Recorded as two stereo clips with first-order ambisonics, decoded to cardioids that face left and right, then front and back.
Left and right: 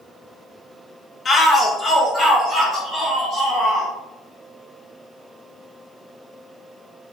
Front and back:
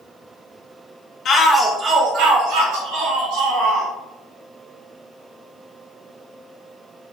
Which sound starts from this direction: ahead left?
A shout, at 1.2 s.